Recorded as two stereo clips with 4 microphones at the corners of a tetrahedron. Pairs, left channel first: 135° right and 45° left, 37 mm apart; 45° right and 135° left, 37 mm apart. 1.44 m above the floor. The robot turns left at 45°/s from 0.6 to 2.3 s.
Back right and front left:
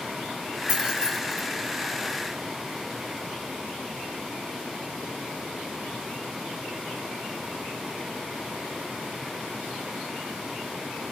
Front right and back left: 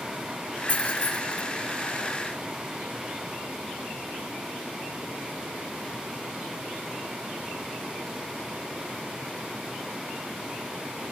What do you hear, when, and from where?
0.7 s keys jangling: 10° right, 1.4 m; by 1.4 s 45° right, 1.4 m